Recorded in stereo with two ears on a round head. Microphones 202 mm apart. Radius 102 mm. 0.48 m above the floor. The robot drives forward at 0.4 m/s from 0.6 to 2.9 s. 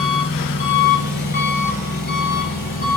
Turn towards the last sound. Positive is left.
turn(degrees=35)  # may be behind; listen again after turning